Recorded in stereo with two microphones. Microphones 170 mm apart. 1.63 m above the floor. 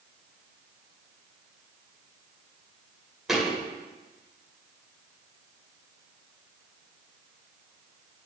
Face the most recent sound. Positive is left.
turn(degrees=0)  # may be behind; listen again after turning